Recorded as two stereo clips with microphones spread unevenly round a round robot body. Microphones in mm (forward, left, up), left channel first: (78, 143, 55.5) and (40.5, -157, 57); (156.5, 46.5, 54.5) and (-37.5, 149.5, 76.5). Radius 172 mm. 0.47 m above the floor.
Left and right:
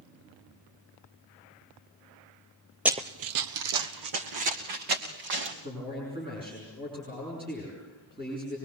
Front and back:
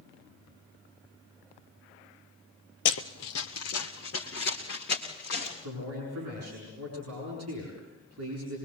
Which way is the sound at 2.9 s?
10° right.